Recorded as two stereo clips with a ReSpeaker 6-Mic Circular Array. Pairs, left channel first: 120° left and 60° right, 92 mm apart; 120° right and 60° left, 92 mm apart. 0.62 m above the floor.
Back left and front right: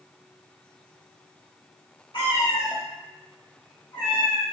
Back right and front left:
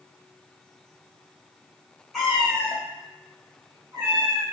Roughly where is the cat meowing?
Behind left.